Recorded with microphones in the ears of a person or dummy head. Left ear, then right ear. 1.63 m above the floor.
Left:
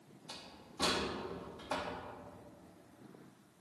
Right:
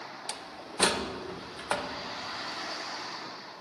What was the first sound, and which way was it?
A door slam, 50° right (ahead or behind).